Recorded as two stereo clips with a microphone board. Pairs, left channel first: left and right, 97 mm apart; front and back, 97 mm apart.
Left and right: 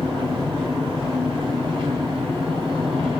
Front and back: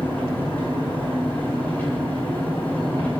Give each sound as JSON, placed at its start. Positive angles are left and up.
{"t": 0.0, "sound": "an engine running", "azimuth_deg": -70, "distance_m": 8.0}